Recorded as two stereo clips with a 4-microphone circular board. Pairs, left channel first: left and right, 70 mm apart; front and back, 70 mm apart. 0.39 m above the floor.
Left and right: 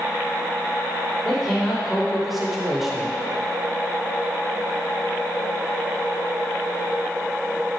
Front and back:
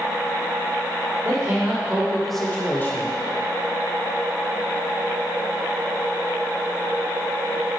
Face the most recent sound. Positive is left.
turn(degrees=-5)